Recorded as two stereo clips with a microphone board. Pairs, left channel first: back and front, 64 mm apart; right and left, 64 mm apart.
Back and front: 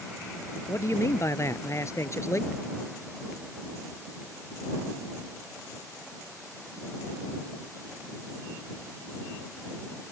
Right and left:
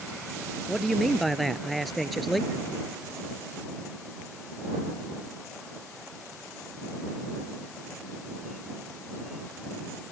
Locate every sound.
0.7 s a man speaking: straight behind